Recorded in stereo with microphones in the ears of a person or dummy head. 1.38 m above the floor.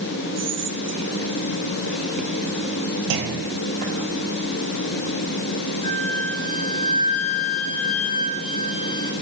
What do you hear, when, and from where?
0.4 s whispering: 40° right (ahead or behind), 0.6 m
3.1 s a clunk: 70° right (ahead or behind), 1.2 m
5.8 s a flute: 30° left (ahead or behind), 1.0 m